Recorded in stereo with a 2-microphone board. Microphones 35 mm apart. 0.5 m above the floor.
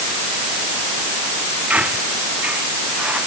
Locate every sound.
1.7 s a squeak: 40° right (ahead or behind)